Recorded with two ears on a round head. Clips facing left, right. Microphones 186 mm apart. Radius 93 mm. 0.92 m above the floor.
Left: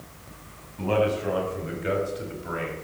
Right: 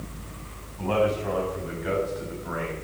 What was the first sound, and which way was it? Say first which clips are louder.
A man speaking: even; 35° left (ahead or behind).